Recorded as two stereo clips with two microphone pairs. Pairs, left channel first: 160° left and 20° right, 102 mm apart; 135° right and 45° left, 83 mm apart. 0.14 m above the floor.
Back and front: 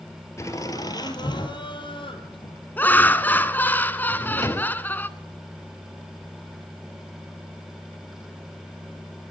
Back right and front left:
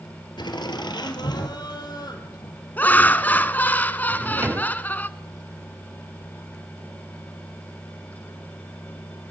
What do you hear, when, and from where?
0.4 s laughter: 145° right, 3 m; by 2.6 s 170° right, 5.5 m
2.8 s laughter: 165° right, 1.1 m
4.1 s a drawer: 100° left, 0.7 m